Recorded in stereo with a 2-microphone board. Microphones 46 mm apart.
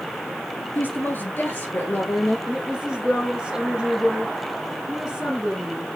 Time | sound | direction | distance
0.8 | a woman speaking | 50° left (ahead or behind) | 1.7 m
2.5 | a woman speaking | 20° right (ahead or behind) | 4.5 m